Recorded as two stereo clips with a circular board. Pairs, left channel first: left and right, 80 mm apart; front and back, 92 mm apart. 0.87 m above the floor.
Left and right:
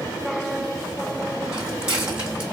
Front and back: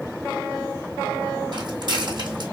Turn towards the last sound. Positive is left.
turn(degrees=-165)